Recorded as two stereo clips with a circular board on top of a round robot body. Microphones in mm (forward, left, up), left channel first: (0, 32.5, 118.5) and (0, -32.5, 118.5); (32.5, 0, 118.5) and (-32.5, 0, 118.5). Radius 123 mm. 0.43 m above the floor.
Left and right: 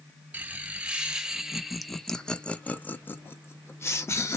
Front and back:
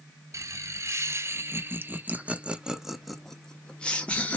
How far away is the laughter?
About 1.4 m.